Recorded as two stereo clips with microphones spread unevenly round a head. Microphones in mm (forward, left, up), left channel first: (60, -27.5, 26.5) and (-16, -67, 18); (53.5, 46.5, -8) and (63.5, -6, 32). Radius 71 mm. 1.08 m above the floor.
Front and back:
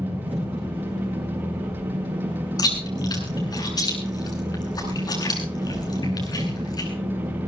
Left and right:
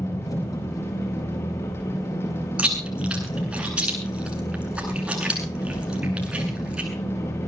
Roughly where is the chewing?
Ahead.